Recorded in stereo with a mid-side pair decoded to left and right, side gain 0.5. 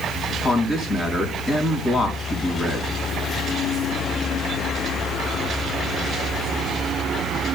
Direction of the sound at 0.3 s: 45° left.